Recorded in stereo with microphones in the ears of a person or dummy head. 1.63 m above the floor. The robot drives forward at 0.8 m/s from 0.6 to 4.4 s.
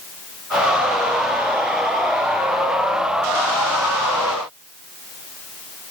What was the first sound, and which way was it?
Only background noise.